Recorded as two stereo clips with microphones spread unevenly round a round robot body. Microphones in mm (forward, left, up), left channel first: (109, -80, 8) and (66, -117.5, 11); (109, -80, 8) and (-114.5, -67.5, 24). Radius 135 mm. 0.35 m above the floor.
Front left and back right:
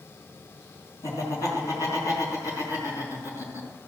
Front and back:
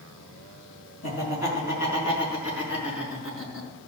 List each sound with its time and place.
1.0 s laughter: 40° left, 4.5 m; by 3.7 s 20° left, 4.5 m